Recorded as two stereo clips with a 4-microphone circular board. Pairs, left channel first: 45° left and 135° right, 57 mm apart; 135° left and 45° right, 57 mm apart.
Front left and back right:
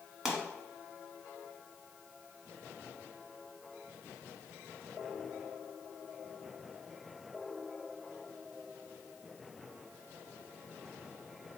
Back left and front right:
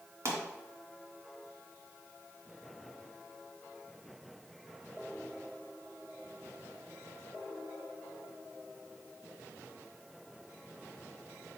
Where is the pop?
50° right, 1.4 m.